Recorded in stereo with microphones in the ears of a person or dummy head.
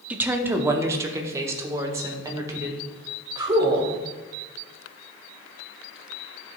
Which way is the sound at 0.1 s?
10° right (ahead or behind).